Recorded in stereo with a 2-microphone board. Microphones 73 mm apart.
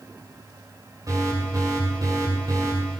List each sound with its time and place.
1.1 s an alarm: 55° right (ahead or behind), 8.5 m